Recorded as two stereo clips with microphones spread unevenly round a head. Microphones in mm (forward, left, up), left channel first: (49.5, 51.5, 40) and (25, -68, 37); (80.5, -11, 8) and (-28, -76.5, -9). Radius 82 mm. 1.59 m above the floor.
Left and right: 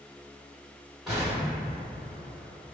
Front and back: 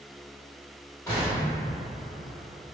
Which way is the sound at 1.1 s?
15° right.